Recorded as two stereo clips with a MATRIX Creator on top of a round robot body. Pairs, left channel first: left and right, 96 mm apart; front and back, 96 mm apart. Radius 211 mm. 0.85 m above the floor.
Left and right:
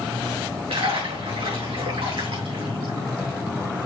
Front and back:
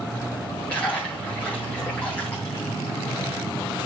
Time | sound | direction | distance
0.7 | a splash | 80° right | 4 m